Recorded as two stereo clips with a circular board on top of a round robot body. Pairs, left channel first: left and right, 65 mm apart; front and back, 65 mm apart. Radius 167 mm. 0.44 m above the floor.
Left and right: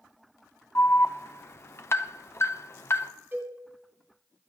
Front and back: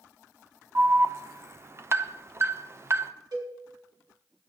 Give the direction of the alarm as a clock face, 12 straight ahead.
7 o'clock.